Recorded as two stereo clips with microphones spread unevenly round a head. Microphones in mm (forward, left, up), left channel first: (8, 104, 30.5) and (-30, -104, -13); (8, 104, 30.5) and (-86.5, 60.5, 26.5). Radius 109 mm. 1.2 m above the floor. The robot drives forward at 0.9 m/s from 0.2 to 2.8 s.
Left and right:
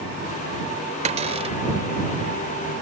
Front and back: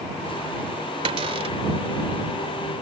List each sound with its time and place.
1.1 s a cupboard door: 165° right; by 1.6 s 170° right